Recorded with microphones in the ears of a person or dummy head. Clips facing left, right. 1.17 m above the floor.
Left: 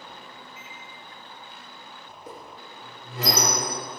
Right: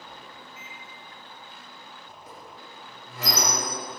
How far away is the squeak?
About 2.5 m.